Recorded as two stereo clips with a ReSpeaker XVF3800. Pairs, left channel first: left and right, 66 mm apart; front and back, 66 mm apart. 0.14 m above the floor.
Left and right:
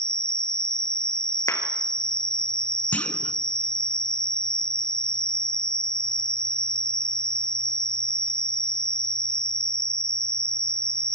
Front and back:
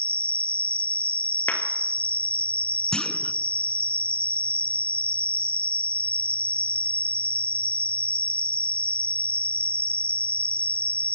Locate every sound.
0.0 s an insect: 125° right, 0.8 m
1.5 s a clap: 60° left, 2.5 m
2.9 s a clunk: 65° left, 0.9 m